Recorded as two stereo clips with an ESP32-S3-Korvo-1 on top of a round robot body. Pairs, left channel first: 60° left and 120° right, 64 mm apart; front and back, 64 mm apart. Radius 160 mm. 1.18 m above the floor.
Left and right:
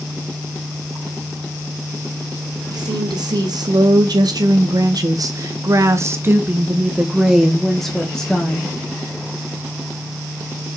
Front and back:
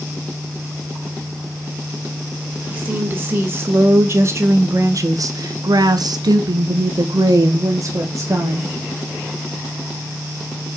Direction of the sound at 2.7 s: 115° right.